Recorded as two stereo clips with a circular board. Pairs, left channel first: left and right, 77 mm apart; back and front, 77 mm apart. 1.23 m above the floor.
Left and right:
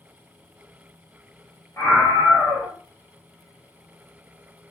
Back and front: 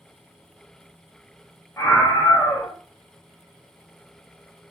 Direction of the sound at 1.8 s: 130° left.